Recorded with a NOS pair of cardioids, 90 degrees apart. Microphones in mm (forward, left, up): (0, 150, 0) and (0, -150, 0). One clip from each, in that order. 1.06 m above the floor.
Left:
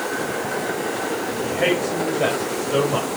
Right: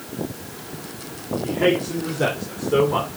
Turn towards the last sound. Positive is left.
turn(degrees=-5)